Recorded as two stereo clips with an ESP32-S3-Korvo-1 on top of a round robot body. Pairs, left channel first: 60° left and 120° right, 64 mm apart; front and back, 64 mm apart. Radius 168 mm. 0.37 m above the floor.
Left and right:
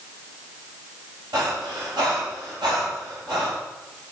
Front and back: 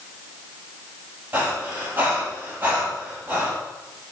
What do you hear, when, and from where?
1.3 s breathing: 120° right, 8 m